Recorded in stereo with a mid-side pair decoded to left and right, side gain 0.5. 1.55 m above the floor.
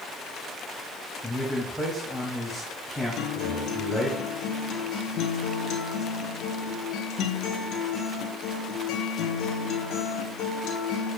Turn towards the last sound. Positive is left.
turn(degrees=70)